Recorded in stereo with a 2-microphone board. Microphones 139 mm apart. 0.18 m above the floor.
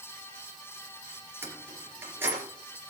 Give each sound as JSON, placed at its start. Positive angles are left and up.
{"t": 1.4, "sound": "keys jangling", "side_deg": -15, "distance_m": 3.0}